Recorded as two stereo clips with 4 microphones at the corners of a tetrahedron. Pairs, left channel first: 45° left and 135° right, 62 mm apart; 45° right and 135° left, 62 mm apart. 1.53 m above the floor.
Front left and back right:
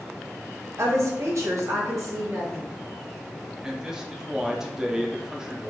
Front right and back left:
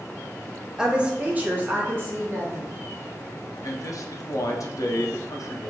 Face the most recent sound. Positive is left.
turn(degrees=-55)